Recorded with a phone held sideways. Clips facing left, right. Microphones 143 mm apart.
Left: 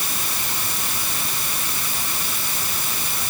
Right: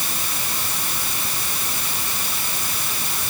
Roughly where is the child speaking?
I don't hear a child speaking.